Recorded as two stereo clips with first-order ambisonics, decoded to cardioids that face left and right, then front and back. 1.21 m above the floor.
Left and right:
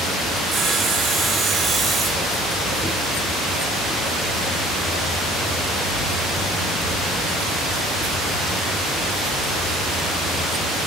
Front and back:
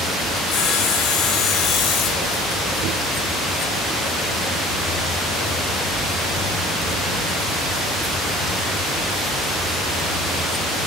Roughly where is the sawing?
Ahead right.